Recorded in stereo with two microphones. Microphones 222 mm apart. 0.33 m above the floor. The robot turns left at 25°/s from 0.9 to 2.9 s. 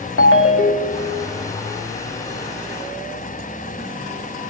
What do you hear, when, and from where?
0.2 s a ringtone: 70° left (ahead or behind), 0.7 m